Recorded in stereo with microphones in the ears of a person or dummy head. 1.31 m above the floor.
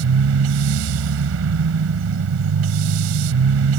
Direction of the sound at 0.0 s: 75° right (ahead or behind).